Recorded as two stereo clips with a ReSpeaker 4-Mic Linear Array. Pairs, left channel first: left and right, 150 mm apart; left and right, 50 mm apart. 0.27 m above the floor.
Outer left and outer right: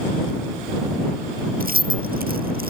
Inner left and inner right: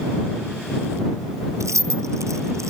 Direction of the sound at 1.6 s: 75° right (ahead or behind).